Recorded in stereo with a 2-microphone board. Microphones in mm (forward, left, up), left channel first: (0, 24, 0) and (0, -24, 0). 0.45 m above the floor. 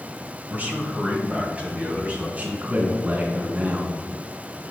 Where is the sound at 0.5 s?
35° right (ahead or behind), 1.7 m; by 2.3 s 30° right (ahead or behind), 3 m.